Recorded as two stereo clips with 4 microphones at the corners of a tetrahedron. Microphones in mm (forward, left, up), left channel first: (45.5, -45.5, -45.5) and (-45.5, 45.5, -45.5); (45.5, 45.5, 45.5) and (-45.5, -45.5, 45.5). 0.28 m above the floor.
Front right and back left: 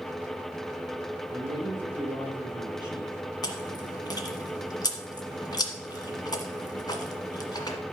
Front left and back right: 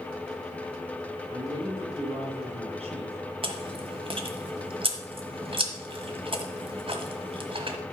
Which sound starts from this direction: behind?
A woman speaking, at 1.3 s.